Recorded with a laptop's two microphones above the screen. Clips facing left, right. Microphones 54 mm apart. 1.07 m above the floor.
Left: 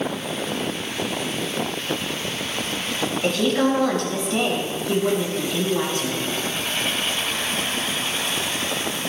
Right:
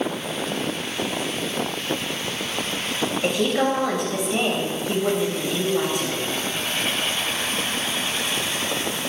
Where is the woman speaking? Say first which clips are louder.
Left 2 dB; 10° right (ahead or behind), 6 m.